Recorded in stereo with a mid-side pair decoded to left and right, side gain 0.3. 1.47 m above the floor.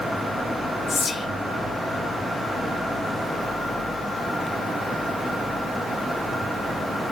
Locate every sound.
0.9 s whispering: 65° left, 2.5 m